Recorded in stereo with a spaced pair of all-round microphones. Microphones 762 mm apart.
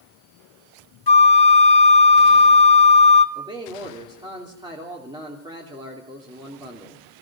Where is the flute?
35° left (ahead or behind), 1.0 m.